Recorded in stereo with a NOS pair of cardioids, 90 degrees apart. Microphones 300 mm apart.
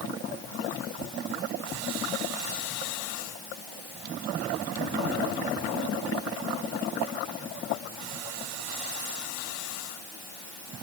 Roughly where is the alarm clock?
I don't hear an alarm clock.